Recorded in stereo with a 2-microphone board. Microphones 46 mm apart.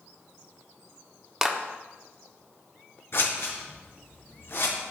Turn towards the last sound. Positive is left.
turn(degrees=60)  # may be behind; listen again after turning